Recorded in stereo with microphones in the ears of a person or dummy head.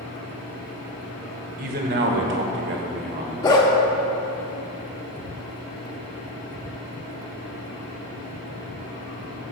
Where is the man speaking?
45° right (ahead or behind), 1.4 m; by 3.6 s 50° right (ahead or behind), 1.9 m.